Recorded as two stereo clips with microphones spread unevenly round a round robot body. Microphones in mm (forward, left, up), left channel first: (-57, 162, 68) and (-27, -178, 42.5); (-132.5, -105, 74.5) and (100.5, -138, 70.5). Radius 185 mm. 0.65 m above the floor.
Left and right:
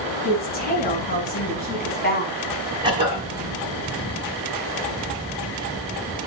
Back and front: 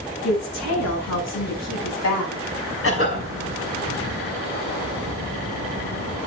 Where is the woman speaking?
160° left, 8 m.